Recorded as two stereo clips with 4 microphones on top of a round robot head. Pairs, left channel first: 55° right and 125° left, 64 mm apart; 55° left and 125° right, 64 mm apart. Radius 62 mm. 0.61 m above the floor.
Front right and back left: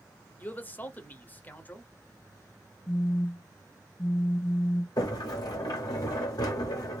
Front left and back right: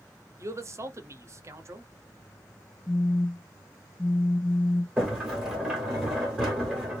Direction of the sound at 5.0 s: 45° right.